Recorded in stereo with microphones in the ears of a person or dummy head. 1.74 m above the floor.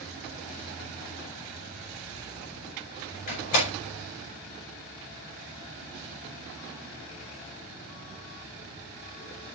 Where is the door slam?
40° left (ahead or behind), 4.5 m.